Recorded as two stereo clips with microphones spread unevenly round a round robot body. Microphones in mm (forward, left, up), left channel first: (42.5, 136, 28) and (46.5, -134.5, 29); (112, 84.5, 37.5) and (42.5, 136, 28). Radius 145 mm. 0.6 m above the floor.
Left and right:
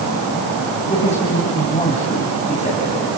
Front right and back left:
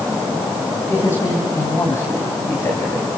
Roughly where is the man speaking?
Ahead left.